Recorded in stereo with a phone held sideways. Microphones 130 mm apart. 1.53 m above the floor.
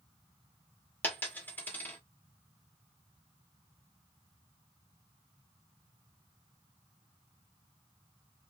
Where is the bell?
I don't hear a bell.